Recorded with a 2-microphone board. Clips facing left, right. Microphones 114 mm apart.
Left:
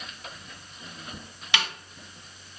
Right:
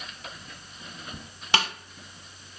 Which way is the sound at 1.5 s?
40° right (ahead or behind).